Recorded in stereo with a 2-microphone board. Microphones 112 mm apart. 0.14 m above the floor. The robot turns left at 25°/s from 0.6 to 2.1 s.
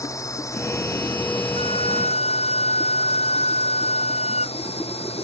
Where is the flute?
60° left (ahead or behind); by 4.6 s 75° left (ahead or behind).